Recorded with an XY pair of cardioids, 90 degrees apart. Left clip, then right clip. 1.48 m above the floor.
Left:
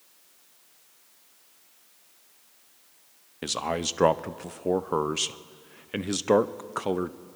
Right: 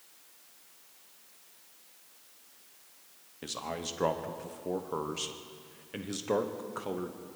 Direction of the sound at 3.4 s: 70° left.